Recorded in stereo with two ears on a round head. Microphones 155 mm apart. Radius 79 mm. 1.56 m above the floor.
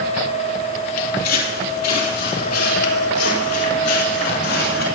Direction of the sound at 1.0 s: 55° left (ahead or behind).